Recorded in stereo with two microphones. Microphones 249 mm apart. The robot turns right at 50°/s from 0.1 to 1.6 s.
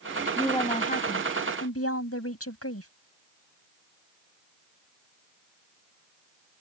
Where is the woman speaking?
5° left; by 2.9 s 70° left.